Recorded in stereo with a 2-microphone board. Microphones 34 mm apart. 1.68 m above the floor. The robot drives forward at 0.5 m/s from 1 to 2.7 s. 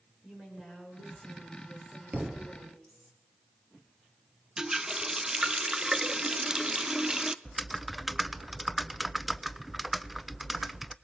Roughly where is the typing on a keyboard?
Centre.